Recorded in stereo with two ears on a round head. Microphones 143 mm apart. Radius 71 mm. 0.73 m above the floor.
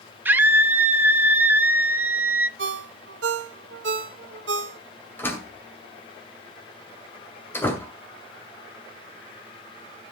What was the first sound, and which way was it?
A scream, 10° right (ahead or behind).